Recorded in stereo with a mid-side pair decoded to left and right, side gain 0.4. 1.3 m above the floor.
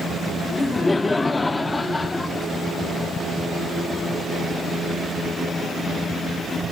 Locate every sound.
0.5 s laughter: 25° left, 1.0 m